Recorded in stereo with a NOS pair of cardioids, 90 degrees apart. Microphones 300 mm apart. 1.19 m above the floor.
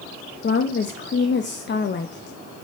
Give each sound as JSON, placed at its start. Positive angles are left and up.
{"t": 0.4, "sound": "a woman speaking", "azimuth_deg": 35, "distance_m": 0.9}